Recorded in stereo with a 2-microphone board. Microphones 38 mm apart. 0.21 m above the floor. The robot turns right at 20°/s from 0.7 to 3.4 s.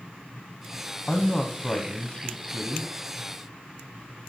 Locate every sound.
1.1 s a man speaking: 25° left (ahead or behind), 1.1 m; by 2.9 s 20° left (ahead or behind), 1.1 m